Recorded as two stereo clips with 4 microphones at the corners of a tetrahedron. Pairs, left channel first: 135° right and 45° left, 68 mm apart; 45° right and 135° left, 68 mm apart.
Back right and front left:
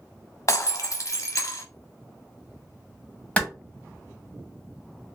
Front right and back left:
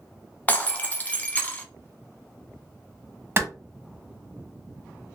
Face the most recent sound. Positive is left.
turn(degrees=165)